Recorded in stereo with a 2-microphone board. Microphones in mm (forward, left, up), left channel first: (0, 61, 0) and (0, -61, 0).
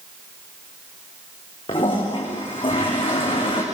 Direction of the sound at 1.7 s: 45° left (ahead or behind).